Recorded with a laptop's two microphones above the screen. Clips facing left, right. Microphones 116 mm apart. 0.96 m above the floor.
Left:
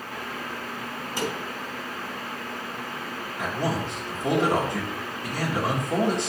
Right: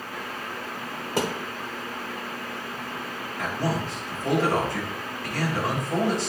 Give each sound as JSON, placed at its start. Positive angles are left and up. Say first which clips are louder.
{"t": 1.2, "sound": "a thud", "louder": "right 3 dB", "side_deg": -75, "distance_m": 1.7}
{"t": 3.4, "sound": "a man speaking", "louder": "even", "side_deg": 20, "distance_m": 1.8}